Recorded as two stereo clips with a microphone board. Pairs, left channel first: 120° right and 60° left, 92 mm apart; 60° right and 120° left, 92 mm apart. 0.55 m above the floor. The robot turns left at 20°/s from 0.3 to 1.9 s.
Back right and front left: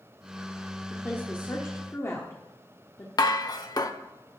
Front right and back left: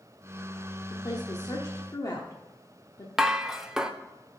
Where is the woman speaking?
55° right, 1.1 m; by 3.1 s 75° right, 1.1 m.